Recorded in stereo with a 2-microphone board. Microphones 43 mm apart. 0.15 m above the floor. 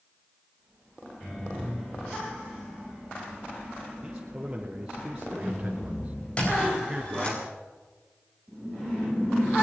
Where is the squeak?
25° left (ahead or behind), 6.5 m.